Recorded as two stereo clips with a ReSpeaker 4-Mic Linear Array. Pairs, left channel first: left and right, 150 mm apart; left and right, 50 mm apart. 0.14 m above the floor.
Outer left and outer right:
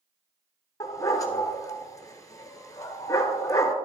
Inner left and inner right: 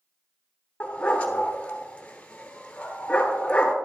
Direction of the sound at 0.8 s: 25° left (ahead or behind).